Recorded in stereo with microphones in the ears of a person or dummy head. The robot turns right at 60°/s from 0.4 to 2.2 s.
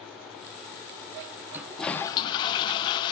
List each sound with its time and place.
1.5 s a toilet flushing: 10° right, 0.5 m; by 3.1 s 30° left, 0.5 m